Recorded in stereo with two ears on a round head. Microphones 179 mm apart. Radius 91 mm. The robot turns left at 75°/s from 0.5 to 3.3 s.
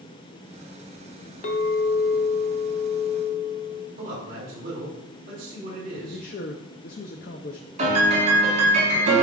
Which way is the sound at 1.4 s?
125° left.